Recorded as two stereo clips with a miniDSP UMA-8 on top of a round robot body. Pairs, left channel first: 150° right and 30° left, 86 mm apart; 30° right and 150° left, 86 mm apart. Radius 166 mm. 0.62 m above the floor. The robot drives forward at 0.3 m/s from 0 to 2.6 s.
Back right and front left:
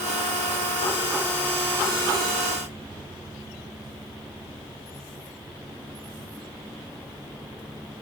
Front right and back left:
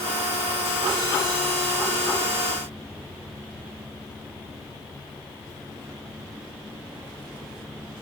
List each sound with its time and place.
Only background noise.